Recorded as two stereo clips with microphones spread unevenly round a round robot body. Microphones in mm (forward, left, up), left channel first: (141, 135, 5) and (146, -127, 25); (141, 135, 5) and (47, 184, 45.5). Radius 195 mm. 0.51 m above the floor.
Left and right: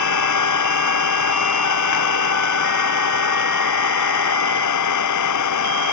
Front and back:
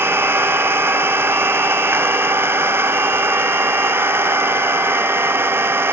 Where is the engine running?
85° left.